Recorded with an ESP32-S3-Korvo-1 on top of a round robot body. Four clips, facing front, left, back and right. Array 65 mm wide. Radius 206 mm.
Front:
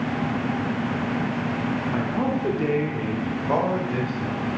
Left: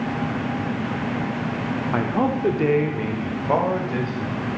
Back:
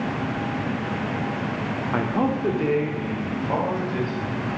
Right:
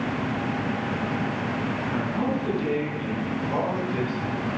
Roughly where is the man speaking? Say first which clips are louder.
Left 6 dB, back 5 dB; behind left.